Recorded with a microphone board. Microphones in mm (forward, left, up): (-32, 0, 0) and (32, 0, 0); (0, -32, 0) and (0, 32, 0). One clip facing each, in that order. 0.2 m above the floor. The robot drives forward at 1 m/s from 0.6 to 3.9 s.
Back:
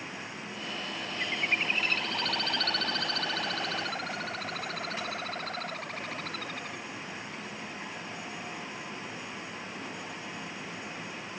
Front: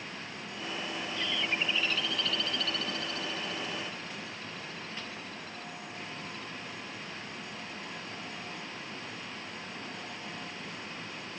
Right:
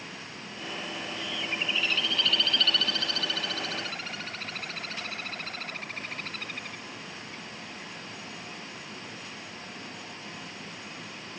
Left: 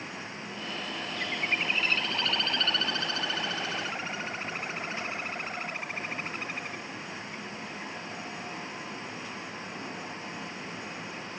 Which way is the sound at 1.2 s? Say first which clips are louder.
Back 3 dB, left 4 dB; 120° left.